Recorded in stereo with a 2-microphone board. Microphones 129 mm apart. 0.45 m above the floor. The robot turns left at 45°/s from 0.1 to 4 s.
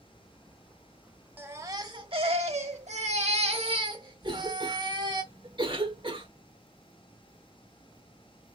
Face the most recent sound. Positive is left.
turn(degrees=-45)  # may be behind; listen again after turning